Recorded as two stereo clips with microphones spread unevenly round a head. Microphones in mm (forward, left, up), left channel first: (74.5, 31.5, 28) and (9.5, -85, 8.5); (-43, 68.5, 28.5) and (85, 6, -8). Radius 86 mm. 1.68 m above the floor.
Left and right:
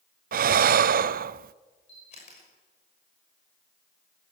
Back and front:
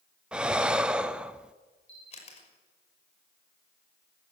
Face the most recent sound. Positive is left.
turn(degrees=115)